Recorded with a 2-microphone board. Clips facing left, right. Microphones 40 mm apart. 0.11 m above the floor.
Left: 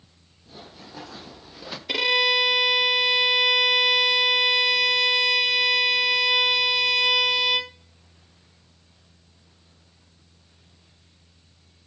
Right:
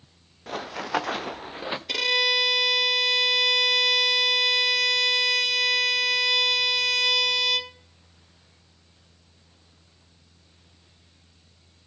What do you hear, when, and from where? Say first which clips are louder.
0.5 s running footsteps: right 15 dB; 75° right (ahead or behind), 1.1 m; by 1.8 s 25° right (ahead or behind), 0.7 m
1.9 s a violin: left 3 dB; 15° left (ahead or behind), 0.7 m